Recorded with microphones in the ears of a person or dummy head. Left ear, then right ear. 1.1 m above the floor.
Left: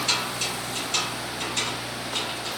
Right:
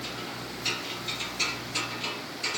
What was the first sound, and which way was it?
Only background noise.